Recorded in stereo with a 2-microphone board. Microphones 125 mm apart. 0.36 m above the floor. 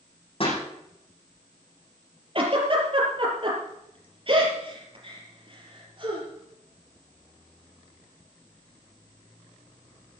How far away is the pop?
About 8 m.